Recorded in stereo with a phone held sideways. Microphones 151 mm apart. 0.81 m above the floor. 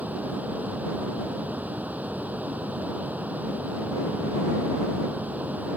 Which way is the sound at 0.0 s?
10° right (ahead or behind).